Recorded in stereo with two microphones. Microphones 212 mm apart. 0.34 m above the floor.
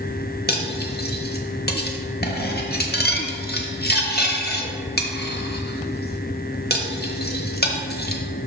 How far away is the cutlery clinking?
About 0.9 m.